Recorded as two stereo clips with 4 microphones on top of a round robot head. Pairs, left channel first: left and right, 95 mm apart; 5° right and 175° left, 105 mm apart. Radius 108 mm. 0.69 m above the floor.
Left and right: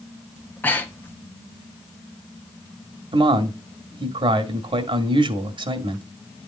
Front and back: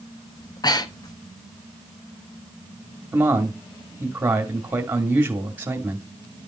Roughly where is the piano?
I don't hear a piano.